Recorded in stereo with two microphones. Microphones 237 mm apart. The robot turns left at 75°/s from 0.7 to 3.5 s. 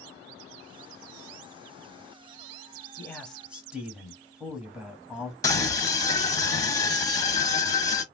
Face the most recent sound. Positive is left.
turn(degrees=15)  # may be behind; listen again after turning